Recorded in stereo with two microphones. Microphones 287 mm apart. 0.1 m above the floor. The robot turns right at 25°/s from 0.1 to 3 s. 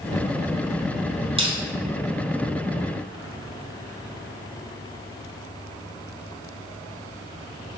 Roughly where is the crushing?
Centre.